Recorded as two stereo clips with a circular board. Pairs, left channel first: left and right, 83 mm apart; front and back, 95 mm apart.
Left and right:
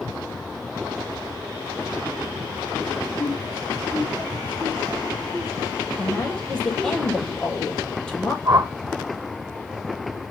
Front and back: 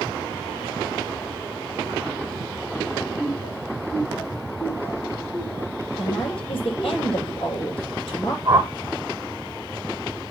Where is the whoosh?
120° right, 1.6 m.